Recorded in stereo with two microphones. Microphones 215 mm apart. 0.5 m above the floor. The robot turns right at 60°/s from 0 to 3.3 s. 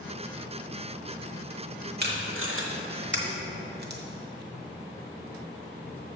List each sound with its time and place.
2.0 s tape being pulled: 50° right (ahead or behind), 1.0 m